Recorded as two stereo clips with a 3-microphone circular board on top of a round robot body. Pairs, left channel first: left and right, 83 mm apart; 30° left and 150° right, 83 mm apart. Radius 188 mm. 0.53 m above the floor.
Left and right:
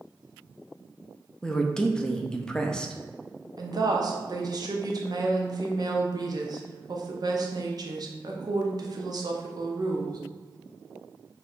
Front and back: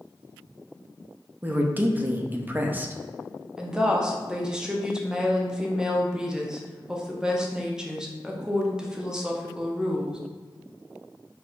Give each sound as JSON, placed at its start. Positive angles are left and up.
{"t": 1.4, "sound": "a woman speaking", "azimuth_deg": 165, "distance_m": 0.8}
{"t": 3.6, "sound": "a woman speaking", "azimuth_deg": -70, "distance_m": 1.0}